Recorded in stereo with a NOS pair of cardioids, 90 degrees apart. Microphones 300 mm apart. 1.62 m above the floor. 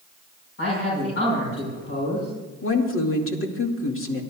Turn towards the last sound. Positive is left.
turn(degrees=45)